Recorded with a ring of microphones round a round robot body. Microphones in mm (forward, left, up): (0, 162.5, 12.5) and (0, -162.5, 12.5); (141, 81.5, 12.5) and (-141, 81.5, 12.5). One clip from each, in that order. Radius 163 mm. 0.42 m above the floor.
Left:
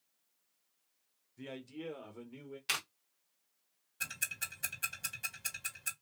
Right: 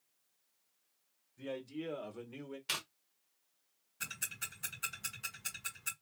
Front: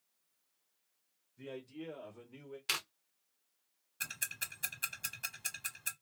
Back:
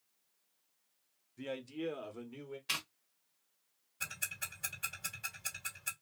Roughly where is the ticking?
Ahead.